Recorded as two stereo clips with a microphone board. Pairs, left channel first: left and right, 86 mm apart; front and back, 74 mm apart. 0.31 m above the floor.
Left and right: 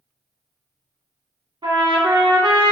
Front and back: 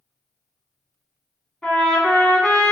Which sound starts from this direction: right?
A trumpet, at 1.6 s.